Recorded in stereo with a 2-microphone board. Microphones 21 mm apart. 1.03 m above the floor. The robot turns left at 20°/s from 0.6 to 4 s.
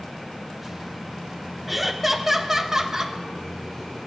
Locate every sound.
1.7 s laughter: centre (ahead or behind), 0.8 m; by 3.2 s 30° right (ahead or behind), 0.8 m